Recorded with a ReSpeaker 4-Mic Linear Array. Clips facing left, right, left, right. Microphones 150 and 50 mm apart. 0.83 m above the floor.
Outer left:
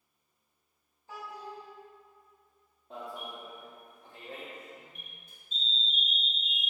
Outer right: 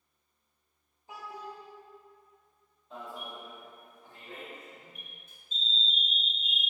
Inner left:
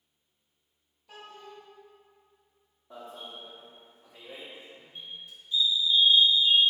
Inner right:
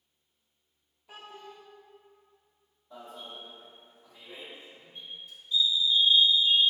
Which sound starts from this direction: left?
An alarm, at 2.9 s.